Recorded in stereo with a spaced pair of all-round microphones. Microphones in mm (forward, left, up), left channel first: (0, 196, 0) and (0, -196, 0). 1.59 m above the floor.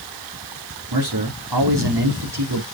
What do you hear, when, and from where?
0.9 s a man speaking: 85° right, 4 m